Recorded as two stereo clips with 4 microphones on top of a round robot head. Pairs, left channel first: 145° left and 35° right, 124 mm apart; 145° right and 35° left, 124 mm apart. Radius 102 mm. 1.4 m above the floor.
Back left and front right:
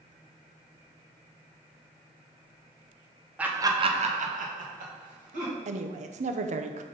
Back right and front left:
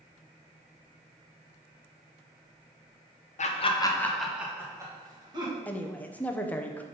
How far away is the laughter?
About 1.0 m.